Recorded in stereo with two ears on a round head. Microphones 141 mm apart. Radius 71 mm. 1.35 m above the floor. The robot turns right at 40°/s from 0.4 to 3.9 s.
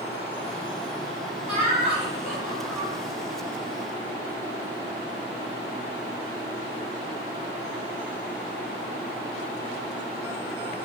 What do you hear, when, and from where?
1.5 s laughter: 50° right, 1.9 m; by 2.9 s 5° left, 1.9 m